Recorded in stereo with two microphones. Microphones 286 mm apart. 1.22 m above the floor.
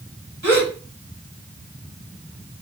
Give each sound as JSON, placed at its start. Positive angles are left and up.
{"t": 0.4, "sound": "a gasp", "side_deg": -80, "distance_m": 1.8}